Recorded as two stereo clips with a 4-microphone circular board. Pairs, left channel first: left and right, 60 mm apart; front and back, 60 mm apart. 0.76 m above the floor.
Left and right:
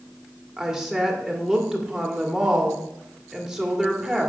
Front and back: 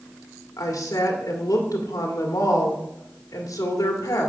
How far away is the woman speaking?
About 2.0 m.